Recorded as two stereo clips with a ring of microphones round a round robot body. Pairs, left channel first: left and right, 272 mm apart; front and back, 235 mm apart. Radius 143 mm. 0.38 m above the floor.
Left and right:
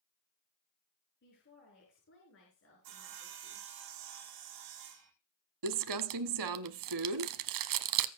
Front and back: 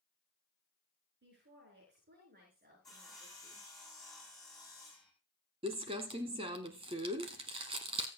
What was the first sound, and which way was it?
A woman speaking, 140° left.